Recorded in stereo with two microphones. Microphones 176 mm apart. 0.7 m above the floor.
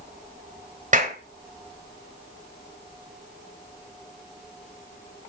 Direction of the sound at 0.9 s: 45° right (ahead or behind).